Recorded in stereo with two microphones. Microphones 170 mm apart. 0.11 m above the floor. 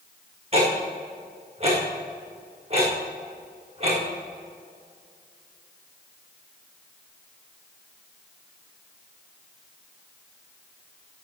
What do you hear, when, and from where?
0.5 s ticking: 35° right (ahead or behind), 3.5 m